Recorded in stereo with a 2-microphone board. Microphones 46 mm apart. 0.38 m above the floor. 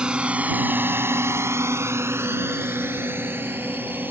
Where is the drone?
20° right (ahead or behind); by 4.1 s 45° right (ahead or behind).